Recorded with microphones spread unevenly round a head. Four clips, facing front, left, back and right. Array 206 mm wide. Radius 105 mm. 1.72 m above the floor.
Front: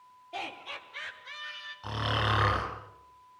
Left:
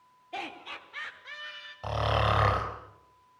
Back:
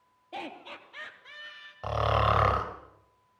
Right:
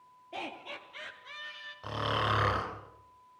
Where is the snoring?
160° left, 4.5 m.